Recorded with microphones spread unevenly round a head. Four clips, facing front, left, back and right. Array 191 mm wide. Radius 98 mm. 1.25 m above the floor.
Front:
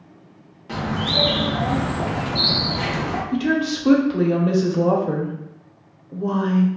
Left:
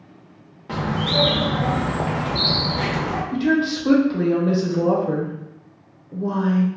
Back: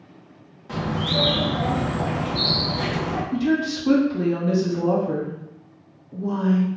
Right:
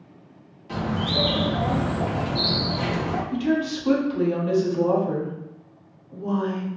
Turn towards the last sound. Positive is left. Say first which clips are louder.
# left 5 dB, front 1 dB
turn(degrees=30)